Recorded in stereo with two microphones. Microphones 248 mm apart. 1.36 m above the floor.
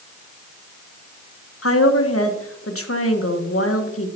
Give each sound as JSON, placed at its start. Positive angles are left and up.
{"t": 1.6, "sound": "a woman speaking", "side_deg": 65, "distance_m": 1.4}